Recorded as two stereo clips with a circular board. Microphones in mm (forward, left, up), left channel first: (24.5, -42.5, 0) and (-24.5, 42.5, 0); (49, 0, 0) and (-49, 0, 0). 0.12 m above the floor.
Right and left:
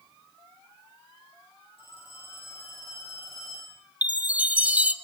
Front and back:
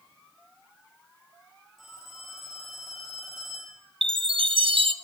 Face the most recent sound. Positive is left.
turn(degrees=-165)